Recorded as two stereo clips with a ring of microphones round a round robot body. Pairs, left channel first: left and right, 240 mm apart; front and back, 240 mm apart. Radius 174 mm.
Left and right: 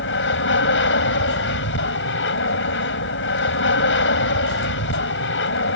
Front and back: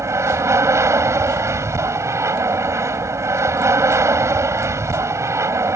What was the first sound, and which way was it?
An aircraft, 105° left.